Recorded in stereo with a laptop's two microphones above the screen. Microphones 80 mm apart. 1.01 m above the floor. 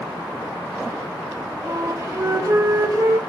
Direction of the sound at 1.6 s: 40° right (ahead or behind).